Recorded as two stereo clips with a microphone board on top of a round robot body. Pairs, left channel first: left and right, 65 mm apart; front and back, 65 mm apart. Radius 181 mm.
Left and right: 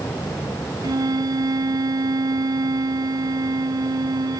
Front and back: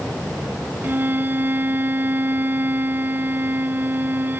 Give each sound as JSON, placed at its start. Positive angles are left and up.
{"t": 0.8, "sound": "a violin", "azimuth_deg": -120}